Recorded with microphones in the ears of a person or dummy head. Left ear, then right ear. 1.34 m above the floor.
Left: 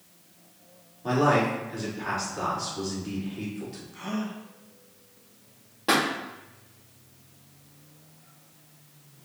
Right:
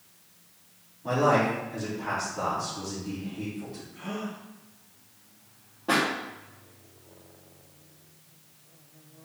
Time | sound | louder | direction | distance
1.0 | a man speaking | even | 40° left (ahead or behind) | 3.5 m
3.9 | a gasp | left 2 dB | 85° left | 2.0 m
5.9 | a pop | left 1 dB | 65° left (ahead or behind) | 1.8 m